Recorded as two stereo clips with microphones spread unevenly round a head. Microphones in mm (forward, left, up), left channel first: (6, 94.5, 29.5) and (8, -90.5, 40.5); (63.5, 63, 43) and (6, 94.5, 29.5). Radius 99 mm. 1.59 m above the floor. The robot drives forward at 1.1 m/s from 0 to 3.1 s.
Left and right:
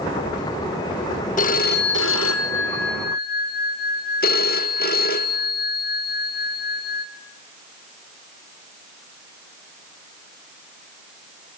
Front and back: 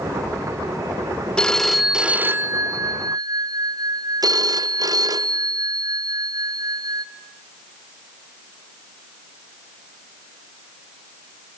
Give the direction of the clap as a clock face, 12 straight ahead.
No clap in this recording.